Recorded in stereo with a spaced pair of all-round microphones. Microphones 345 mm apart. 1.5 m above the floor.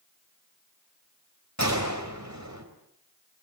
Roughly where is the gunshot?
Right.